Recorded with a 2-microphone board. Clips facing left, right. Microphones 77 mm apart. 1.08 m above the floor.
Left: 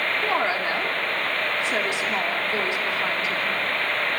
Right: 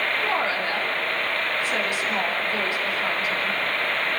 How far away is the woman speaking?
About 3 m.